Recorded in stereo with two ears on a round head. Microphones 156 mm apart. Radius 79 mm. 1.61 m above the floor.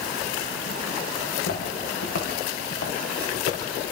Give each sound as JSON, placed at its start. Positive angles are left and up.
{"t": 1.2, "sound": "footsteps", "side_deg": 75, "distance_m": 8.0}